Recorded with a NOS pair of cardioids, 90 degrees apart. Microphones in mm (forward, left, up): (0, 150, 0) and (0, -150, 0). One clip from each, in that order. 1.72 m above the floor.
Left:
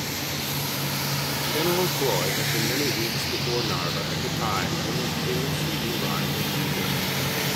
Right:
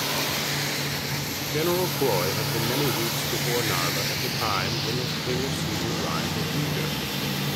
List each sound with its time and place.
1.5 s a man speaking: 10° right, 0.8 m